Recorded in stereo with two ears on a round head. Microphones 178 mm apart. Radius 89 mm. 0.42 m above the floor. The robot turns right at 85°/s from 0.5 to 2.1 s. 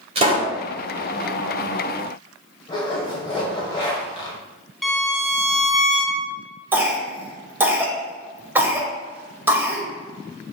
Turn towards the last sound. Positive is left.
turn(degrees=-10)  # may be behind; listen again after turning